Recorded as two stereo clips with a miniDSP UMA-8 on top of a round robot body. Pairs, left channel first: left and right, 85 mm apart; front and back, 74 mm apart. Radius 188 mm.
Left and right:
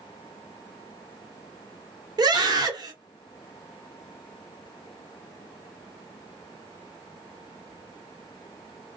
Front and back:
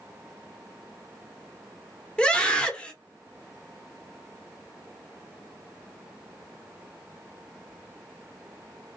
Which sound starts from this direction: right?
A scream, at 2.2 s.